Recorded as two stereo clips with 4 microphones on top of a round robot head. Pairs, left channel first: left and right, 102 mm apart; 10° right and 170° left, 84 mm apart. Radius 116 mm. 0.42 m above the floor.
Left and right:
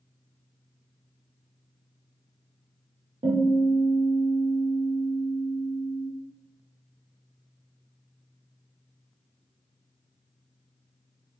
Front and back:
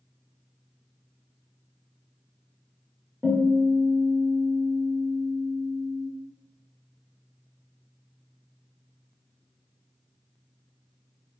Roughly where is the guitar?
Right.